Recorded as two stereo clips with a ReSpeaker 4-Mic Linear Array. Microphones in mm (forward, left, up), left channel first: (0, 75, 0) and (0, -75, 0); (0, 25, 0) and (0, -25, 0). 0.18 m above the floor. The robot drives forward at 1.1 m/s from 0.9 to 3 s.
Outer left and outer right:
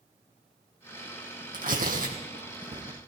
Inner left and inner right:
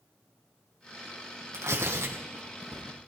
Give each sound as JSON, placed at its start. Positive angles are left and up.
{"t": 1.5, "sound": "tearing paper", "side_deg": -80, "distance_m": 3.0}